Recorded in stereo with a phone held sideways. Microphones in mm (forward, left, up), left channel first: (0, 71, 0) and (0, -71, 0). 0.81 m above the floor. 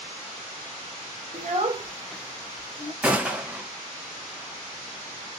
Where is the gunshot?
10° right (ahead or behind), 0.8 m.